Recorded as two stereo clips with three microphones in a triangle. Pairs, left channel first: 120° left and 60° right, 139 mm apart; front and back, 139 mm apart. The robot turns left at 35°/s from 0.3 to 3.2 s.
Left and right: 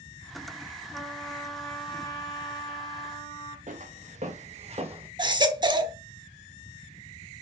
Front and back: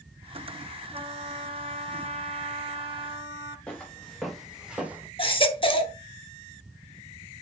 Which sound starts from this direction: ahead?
A baby crying, at 5.2 s.